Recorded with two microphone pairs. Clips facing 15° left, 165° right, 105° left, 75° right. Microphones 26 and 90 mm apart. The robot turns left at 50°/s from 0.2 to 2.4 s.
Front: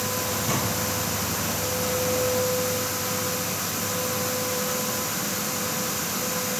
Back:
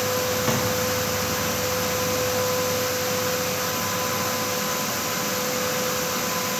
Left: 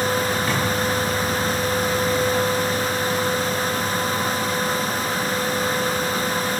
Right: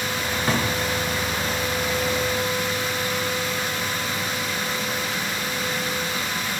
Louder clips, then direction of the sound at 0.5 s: Back 2 dB, even; 140° right.